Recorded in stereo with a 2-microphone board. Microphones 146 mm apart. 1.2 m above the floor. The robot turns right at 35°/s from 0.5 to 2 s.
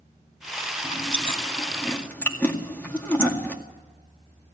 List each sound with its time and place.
0.8 s chewing: 50° left (ahead or behind), 2 m; by 3.6 s 10° left (ahead or behind), 2 m